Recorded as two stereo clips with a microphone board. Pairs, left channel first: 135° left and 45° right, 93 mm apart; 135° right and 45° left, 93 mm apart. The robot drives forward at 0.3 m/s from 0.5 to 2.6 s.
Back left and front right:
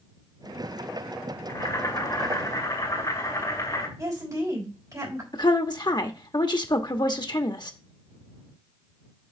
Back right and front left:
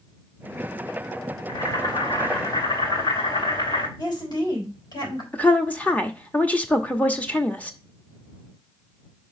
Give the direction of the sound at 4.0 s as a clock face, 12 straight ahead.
3 o'clock.